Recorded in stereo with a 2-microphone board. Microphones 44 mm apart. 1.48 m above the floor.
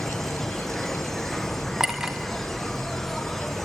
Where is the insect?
5° left (ahead or behind), 1.0 m.